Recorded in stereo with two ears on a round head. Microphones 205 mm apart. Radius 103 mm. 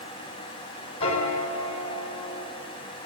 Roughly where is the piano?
Left.